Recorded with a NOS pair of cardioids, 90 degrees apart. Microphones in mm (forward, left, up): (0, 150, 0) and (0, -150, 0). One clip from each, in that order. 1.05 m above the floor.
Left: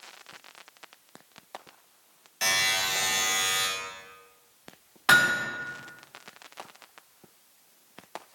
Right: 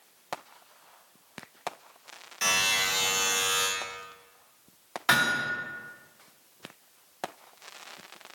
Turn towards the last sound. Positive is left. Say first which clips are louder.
# left 3 dB
turn(degrees=10)